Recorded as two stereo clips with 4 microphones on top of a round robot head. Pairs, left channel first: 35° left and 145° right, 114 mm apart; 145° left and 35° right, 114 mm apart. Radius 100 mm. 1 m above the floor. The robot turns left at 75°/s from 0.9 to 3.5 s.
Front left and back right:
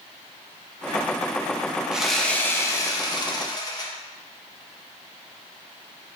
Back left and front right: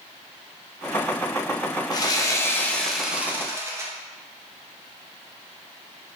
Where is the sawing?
135° left, 0.7 m; by 3.9 s 15° left, 0.7 m.